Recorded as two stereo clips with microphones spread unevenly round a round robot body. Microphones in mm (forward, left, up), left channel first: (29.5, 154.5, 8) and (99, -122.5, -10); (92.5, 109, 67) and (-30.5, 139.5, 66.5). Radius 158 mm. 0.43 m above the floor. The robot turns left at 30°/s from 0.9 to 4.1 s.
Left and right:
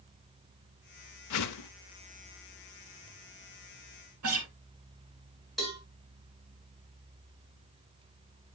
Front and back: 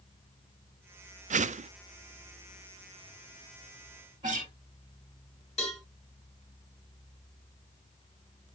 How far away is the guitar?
About 1.6 m.